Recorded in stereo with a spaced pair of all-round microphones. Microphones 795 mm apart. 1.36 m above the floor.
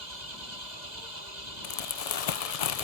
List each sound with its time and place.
0.0 s an engine running: 65° right (ahead or behind)
1.6 s crumpling: 55° left (ahead or behind)